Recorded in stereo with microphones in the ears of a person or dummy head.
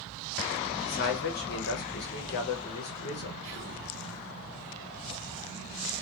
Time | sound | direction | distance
0.8 | a man speaking | 55° left (ahead or behind) | 0.6 m
3.4 | whispering | 45° right (ahead or behind) | 0.5 m